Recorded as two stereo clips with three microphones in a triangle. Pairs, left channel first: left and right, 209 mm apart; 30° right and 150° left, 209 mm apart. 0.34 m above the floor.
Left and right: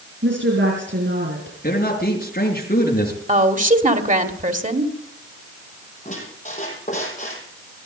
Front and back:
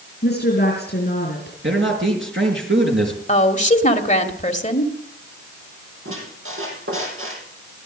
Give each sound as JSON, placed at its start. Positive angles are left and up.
{"t": 0.2, "sound": "a woman speaking", "azimuth_deg": -65, "distance_m": 5.0}
{"t": 1.6, "sound": "a man speaking", "azimuth_deg": 135, "distance_m": 5.0}
{"t": 3.3, "sound": "a woman speaking", "azimuth_deg": -65, "distance_m": 1.7}
{"t": 6.0, "sound": "a squeak", "azimuth_deg": 145, "distance_m": 4.5}